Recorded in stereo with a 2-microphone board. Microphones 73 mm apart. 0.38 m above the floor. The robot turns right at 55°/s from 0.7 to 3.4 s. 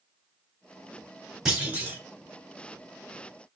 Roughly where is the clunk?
Centre.